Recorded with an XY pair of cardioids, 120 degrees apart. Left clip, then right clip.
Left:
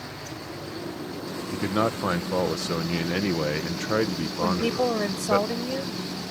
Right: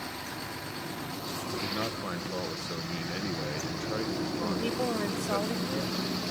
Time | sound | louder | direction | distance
1.5 | a man speaking | left 9 dB | 60° left | ?
4.4 | a woman speaking | left 9 dB | 40° left | ?